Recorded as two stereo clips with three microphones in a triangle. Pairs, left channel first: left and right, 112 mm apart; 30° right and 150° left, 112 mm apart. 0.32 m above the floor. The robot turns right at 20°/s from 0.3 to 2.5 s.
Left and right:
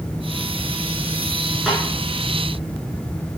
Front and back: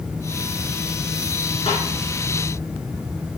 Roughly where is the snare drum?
Ahead.